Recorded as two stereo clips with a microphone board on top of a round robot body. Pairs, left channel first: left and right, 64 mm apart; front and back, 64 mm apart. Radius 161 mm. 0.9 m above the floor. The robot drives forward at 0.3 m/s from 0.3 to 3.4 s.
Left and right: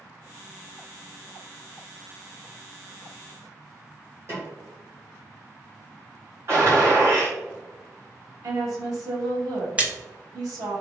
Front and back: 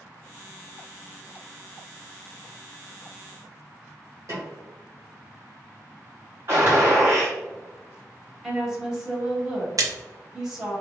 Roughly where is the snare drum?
Behind right.